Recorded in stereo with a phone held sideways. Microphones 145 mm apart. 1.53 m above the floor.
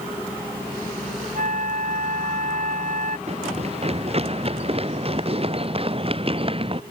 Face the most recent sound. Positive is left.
turn(degrees=-40)  # may be behind; listen again after turning